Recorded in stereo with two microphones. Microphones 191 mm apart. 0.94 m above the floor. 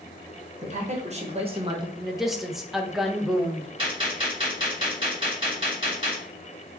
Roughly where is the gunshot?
Right.